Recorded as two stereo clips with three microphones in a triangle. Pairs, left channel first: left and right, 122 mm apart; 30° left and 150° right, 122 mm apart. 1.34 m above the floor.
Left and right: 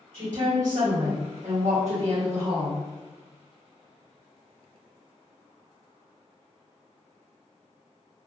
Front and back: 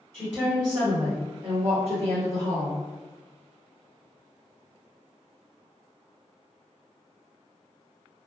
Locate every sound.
0.1 s a woman speaking: 65° right, 1.4 m; by 2.8 s 145° right, 1.1 m